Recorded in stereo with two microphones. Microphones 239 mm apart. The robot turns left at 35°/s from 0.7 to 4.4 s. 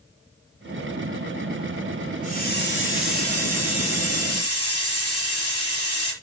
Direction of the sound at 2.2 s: 145° left.